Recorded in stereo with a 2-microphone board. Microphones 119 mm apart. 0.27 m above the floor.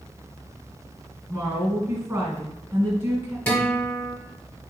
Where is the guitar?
15° left (ahead or behind), 1.4 m.